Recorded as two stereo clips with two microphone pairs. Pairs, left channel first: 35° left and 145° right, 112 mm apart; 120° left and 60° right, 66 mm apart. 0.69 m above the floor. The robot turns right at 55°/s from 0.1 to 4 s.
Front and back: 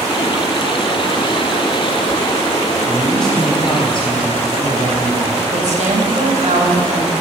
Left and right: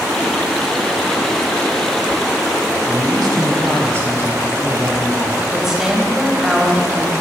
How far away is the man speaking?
About 4 m.